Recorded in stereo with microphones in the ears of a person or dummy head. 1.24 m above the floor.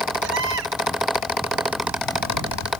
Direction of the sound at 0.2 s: 60° right (ahead or behind).